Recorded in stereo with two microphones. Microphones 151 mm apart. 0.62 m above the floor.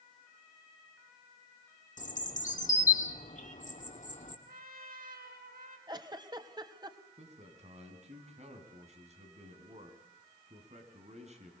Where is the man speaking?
45° right (ahead or behind), 4.5 m.